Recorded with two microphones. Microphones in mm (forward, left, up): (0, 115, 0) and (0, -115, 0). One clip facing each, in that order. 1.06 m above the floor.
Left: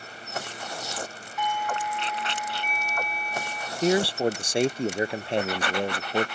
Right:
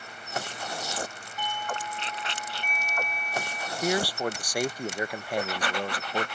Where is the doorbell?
35° right (ahead or behind).